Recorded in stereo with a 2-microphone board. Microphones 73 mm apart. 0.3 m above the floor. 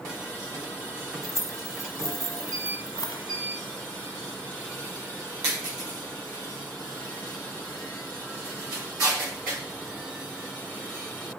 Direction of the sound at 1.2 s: 45° left (ahead or behind).